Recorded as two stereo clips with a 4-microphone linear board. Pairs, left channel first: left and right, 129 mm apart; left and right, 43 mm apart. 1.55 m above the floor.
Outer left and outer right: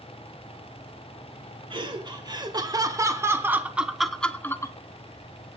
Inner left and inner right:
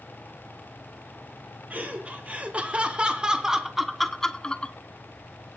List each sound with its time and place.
1.7 s laughter: 40° right (ahead or behind), 2 m; by 4.8 s 25° left (ahead or behind), 0.9 m